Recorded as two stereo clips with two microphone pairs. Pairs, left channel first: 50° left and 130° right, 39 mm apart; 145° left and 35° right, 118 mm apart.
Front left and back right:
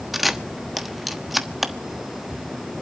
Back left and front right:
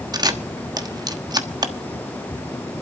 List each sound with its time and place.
0.1 s a camera shutter: 45° right, 1.2 m